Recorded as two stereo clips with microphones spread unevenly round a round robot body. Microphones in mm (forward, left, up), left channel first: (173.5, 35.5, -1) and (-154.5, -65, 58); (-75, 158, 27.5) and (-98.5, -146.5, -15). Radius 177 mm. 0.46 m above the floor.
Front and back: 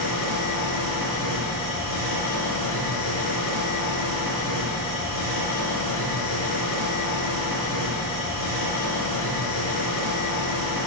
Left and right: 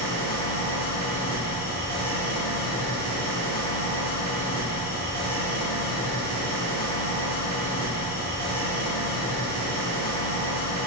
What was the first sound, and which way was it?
An engine running, 145° right.